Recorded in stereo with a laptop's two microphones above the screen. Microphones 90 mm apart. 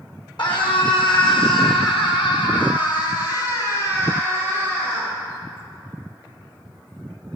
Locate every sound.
0.4 s a scream: 60° left (ahead or behind), 2.5 m; by 5.1 s 15° left (ahead or behind), 2.5 m